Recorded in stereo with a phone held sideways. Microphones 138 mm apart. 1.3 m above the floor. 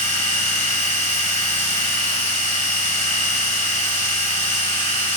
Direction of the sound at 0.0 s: 60° left (ahead or behind).